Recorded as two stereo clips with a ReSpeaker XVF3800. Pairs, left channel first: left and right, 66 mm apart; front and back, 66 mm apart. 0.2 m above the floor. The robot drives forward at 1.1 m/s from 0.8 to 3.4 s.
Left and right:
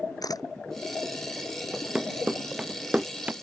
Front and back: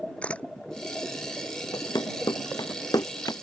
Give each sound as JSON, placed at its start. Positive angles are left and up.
{"t": 0.2, "sound": "a camera shutter", "azimuth_deg": 70}
{"t": 1.7, "sound": "running footsteps", "azimuth_deg": -10}